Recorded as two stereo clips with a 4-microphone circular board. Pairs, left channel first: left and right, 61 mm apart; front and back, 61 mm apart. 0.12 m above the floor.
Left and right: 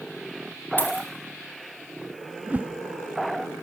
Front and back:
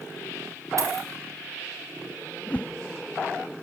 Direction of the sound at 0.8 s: 150° left.